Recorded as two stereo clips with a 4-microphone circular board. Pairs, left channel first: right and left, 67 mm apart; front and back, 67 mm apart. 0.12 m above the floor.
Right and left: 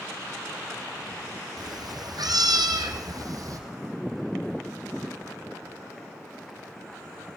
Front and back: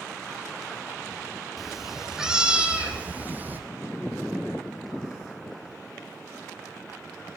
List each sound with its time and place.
1.6 s a cat meowing: 90° left, 3.5 m; by 3.6 s 120° left, 3 m